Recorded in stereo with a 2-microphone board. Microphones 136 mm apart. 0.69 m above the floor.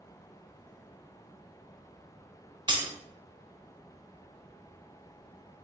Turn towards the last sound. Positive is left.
turn(degrees=-35)  # may be behind; listen again after turning